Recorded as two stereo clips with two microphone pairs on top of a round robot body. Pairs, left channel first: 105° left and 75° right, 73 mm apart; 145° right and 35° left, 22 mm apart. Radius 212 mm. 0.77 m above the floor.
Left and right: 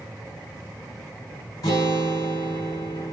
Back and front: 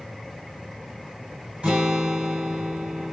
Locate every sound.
1.6 s a guitar: 65° left, 1.0 m